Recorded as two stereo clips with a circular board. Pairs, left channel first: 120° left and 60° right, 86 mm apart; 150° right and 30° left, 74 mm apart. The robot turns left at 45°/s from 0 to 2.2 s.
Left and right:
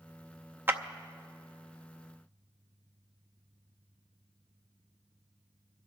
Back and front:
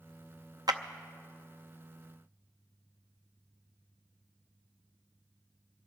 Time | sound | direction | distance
0.7 | a clap | 5° left | 0.6 m